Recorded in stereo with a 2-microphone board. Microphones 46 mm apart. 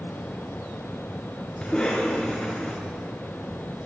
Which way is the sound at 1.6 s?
Centre (ahead or behind).